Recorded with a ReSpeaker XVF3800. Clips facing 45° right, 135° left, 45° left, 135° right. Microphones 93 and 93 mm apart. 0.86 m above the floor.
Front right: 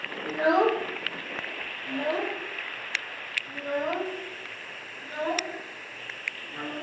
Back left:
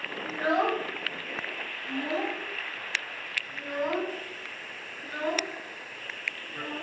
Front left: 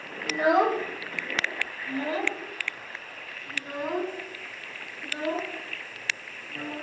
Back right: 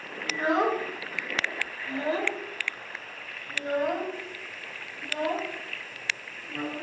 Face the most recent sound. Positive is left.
turn(degrees=-110)